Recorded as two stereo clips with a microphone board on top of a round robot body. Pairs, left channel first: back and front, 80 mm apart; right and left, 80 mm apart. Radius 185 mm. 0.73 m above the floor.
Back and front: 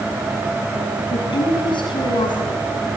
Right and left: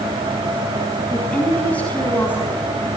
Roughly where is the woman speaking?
Behind.